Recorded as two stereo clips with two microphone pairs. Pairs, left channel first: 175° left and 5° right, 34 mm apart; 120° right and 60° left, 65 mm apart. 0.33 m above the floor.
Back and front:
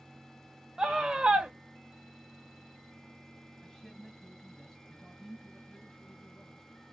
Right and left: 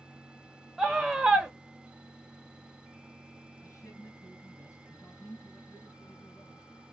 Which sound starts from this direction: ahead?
A scream, at 0.8 s.